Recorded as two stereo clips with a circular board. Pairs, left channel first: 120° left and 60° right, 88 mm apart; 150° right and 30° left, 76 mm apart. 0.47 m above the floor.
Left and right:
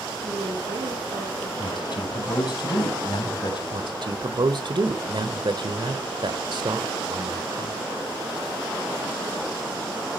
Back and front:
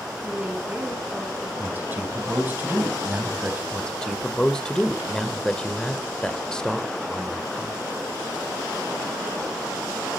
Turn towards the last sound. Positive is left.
turn(degrees=-70)